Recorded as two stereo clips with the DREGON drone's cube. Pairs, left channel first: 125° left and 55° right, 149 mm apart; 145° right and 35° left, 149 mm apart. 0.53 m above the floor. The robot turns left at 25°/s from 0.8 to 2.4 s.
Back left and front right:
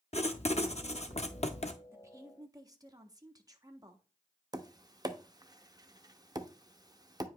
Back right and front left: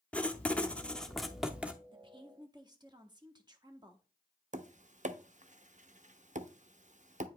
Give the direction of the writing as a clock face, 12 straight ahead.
7 o'clock.